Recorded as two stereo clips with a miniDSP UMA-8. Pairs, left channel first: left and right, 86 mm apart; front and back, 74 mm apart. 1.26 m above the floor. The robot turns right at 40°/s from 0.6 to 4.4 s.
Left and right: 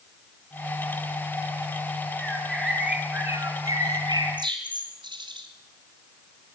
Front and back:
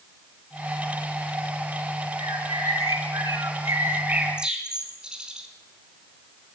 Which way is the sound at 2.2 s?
170° left.